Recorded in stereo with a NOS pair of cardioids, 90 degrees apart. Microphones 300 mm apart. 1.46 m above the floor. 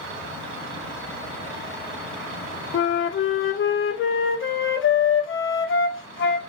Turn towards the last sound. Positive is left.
turn(degrees=45)